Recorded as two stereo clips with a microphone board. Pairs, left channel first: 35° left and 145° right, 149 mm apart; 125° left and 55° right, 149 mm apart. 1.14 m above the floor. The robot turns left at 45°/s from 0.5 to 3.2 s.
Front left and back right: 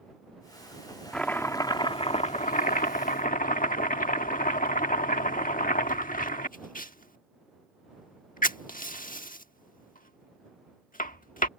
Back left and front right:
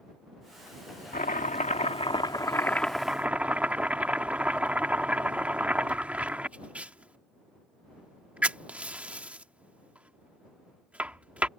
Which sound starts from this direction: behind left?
Chopping, at 1.1 s.